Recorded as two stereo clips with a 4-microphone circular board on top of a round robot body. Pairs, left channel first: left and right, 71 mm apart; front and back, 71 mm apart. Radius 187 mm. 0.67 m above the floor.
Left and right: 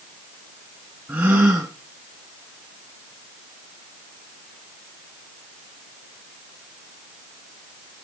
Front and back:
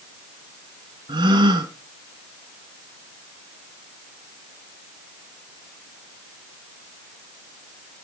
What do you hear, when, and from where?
1.1 s a gasp: 165° right, 1.5 m